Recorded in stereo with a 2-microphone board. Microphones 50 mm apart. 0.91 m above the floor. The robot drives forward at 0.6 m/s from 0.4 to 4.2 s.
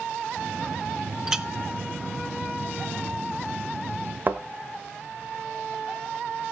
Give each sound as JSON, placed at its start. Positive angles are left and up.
{"t": 1.3, "sound": "a clink", "side_deg": -10, "distance_m": 0.9}
{"t": 4.3, "sound": "a thud", "side_deg": -40, "distance_m": 1.3}